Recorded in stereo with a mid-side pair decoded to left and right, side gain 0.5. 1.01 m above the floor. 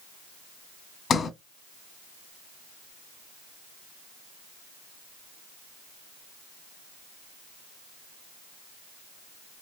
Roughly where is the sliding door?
Ahead left.